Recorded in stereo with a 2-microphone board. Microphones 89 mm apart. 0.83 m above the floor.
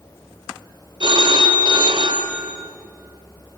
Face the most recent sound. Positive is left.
turn(degrees=-60)  # may be behind; listen again after turning